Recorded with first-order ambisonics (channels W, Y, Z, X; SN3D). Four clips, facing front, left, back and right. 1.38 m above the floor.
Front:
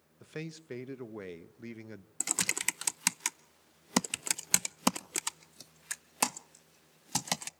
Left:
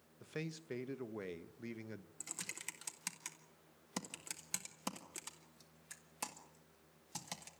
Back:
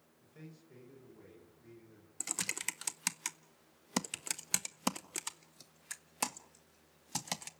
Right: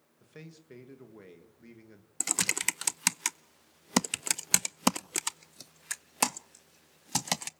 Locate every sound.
0.2 s a man speaking: 20° left, 1.4 m
2.2 s typing on a keyboard: 65° right, 0.5 m